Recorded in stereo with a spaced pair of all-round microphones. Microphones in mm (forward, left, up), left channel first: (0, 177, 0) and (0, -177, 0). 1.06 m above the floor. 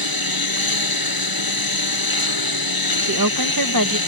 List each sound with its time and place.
0.0 s a lawn mower: 85° left
3.0 s a woman speaking: 65° right (ahead or behind)